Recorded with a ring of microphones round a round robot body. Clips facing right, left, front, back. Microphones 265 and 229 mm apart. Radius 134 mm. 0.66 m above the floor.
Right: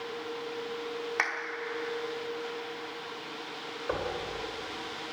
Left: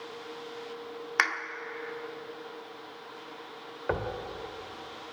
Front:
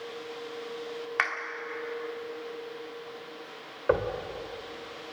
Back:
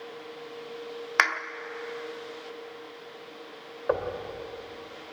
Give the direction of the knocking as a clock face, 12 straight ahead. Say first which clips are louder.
Left 1 dB, front 2 dB; 10 o'clock.